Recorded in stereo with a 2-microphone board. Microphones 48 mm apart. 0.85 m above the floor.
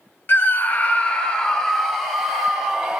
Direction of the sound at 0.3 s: 40° left (ahead or behind).